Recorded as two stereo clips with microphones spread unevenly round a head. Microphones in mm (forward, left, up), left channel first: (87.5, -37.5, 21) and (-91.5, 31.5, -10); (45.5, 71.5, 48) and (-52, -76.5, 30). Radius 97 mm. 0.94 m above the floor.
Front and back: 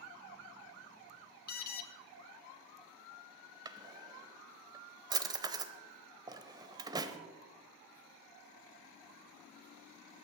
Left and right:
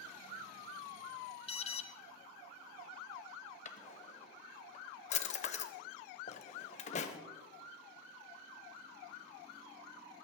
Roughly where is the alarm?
Ahead.